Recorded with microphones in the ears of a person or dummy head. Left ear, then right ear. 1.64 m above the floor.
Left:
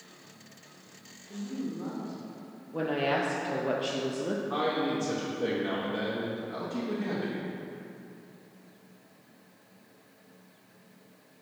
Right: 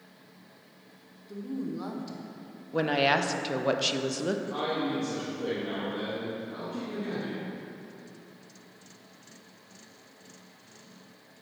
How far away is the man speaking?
About 1.3 m.